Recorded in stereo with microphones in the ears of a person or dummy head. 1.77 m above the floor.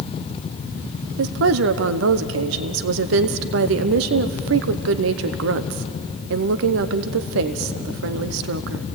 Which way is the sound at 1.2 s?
65° right (ahead or behind).